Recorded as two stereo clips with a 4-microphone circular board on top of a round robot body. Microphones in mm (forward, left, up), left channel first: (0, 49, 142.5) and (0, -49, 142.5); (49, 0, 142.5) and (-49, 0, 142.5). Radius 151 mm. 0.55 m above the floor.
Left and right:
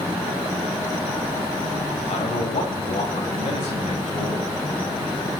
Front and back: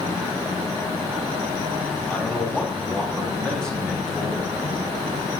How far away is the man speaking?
About 4.5 m.